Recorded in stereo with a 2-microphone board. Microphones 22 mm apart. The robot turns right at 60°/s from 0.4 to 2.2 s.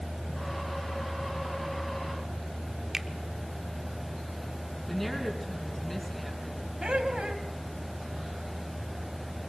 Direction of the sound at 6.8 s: 55° right (ahead or behind).